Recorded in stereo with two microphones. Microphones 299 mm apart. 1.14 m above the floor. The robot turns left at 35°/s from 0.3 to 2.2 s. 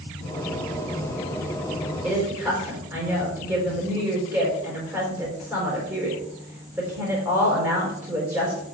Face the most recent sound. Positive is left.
turn(degrees=-5)  # may be behind; listen again after turning